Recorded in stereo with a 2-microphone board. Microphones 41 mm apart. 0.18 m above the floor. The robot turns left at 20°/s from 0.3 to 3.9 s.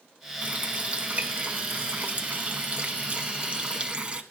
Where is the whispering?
No whispering in this recording.